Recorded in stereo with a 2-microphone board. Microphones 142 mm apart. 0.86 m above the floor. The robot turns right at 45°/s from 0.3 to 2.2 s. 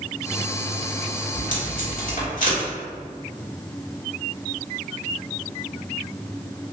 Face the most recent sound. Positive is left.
turn(degrees=75)  # may be behind; listen again after turning